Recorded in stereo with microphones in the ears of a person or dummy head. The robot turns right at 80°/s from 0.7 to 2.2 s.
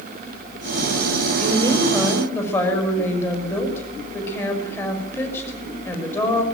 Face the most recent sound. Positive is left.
turn(degrees=15)